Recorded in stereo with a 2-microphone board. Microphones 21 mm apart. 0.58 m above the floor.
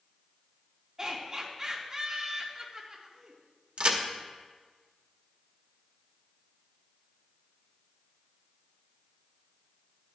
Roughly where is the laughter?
Right.